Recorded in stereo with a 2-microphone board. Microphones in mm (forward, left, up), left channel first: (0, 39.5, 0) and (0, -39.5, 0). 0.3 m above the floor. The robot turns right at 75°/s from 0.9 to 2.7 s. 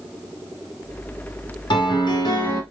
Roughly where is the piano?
Left.